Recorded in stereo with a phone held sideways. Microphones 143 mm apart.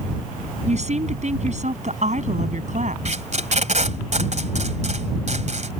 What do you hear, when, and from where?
0.7 s a woman speaking: 50° right (ahead or behind); by 3.0 s 55° right (ahead or behind)
3.0 s tape being pulled: 55° right (ahead or behind)